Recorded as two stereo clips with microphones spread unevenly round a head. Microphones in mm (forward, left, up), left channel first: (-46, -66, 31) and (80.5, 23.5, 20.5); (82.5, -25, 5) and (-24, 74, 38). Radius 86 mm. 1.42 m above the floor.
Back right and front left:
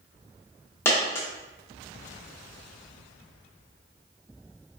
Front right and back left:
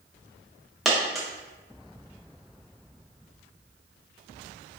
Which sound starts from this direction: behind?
A dropped coin, at 0.8 s.